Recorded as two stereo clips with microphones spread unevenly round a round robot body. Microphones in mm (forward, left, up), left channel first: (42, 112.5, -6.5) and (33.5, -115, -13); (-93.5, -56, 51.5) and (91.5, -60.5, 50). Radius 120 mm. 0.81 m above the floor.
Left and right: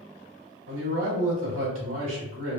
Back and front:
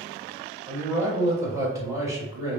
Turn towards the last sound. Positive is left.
turn(degrees=-75)